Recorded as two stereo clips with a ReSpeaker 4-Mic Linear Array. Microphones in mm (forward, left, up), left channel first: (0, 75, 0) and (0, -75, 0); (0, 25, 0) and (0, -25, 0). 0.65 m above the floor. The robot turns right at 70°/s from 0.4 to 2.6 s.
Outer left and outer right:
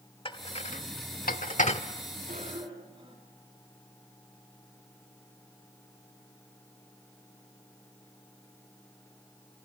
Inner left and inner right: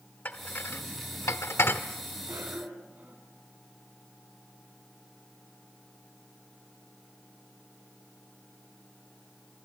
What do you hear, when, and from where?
0.2 s dishes clattering: 35° left (ahead or behind), 1.1 m; by 1.8 s 40° left (ahead or behind), 1.1 m
2.3 s a cough: 60° right (ahead or behind), 5.5 m; by 3.2 s 35° right (ahead or behind), 5.5 m